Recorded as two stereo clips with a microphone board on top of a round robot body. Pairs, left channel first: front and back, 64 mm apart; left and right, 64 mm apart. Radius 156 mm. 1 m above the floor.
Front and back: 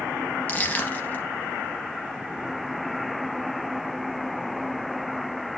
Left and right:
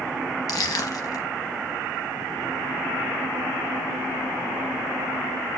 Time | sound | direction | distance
0.5 | crushing | 65° left | 0.7 m